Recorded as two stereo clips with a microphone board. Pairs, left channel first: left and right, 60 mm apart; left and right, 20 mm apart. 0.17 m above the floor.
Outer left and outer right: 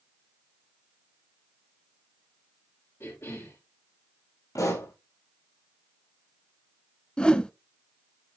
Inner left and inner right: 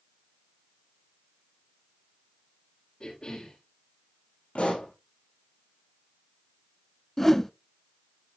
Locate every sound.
3.0 s a cough: 50° left (ahead or behind), 5.5 m
4.5 s a pop: 80° left, 6.5 m
7.2 s a whoosh: 20° left (ahead or behind), 0.6 m